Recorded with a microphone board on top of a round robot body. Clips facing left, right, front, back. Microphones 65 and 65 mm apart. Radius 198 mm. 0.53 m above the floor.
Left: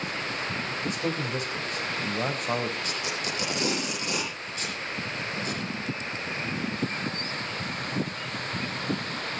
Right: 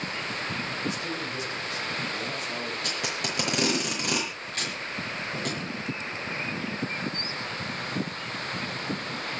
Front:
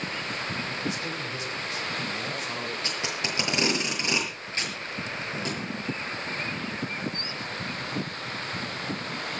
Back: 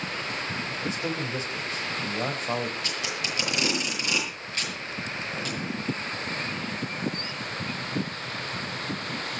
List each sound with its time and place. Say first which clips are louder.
0.9 s a man speaking: left 2 dB, back 2 dB; 130° left, 5 m
2.8 s tape being pulled: even, even; 60° right, 7.5 m